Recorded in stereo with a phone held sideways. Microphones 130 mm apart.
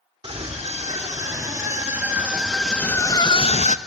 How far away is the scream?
About 3 m.